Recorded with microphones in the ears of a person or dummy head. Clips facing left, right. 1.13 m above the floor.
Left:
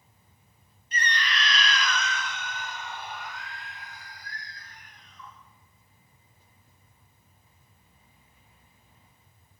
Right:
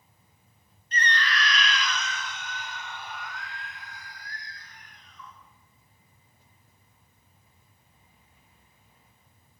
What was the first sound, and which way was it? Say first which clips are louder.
A scream: right 2 dB; 10° left (ahead or behind).